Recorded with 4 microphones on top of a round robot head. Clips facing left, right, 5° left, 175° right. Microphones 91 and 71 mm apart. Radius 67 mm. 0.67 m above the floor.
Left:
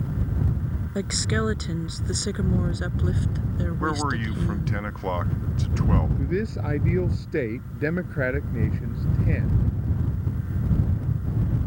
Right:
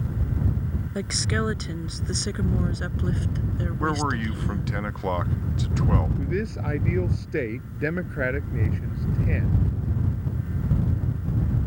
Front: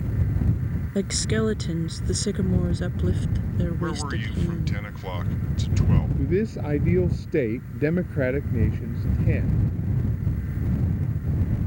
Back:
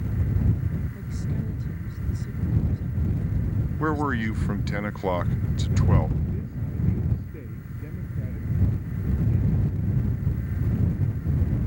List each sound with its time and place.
0.9 s a woman speaking: 5° left; by 4.8 s 10° left
3.8 s a man speaking: 175° right
6.2 s a man speaking: 5° left